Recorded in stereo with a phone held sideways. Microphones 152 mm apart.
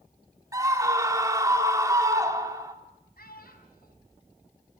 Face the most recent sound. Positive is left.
turn(degrees=85)